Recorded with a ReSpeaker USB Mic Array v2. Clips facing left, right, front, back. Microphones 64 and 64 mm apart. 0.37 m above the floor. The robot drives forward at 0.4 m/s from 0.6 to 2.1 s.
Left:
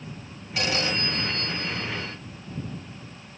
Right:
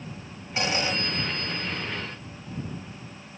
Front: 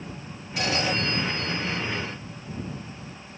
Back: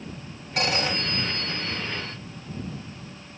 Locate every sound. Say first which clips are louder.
0.6 s a phone ringing: even, even; 155° right, 2.5 m; by 2.2 s 160° right, 3 m